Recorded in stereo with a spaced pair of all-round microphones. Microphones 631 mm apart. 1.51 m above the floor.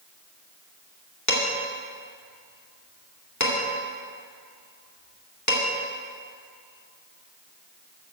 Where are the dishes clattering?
25° left (ahead or behind), 2 m.